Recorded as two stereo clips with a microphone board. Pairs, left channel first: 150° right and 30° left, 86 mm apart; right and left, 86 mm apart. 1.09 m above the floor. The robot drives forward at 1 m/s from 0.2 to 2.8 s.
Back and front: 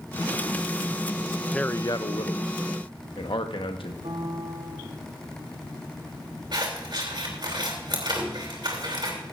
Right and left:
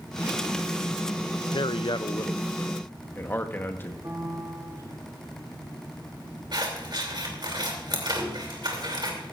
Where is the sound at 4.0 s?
35° left, 1.7 m.